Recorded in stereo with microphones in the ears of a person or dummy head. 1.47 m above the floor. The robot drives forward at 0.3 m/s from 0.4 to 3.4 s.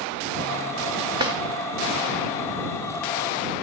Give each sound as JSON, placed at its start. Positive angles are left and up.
{"t": 1.2, "sound": "a drawer", "side_deg": -20, "distance_m": 2.5}